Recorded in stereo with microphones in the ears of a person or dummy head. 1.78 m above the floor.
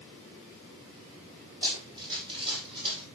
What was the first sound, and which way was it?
Running footsteps, 25° right (ahead or behind).